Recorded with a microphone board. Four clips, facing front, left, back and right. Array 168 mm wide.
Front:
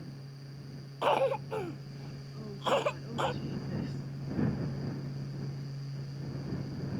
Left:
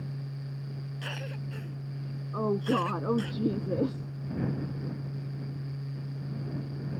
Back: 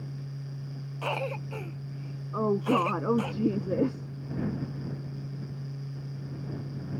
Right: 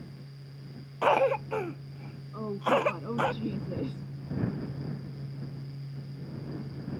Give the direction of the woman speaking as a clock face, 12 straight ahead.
7 o'clock.